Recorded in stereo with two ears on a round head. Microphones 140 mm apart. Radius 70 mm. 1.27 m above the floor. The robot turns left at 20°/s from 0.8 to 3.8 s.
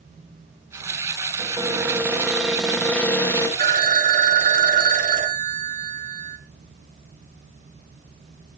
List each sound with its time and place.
1.4 s a cupboard door: 155° right, 3 m; by 3.5 s 160° left, 3 m
3.6 s a phone ringing: 60° right (ahead or behind), 1.8 m; by 6.4 s 55° right (ahead or behind), 1.8 m